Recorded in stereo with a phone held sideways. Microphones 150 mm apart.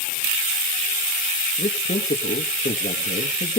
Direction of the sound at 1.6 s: 60° left (ahead or behind).